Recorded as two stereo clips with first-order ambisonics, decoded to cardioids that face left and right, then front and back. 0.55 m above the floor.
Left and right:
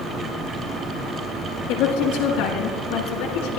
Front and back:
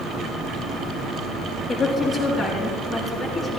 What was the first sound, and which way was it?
A woman speaking, 80° left.